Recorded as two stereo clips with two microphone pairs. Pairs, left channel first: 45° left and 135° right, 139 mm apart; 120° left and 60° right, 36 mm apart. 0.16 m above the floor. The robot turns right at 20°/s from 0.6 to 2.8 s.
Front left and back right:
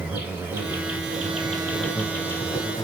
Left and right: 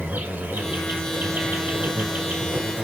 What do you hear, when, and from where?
0.0 s an insect: 60° right, 0.9 m; by 2.8 s 20° right, 0.9 m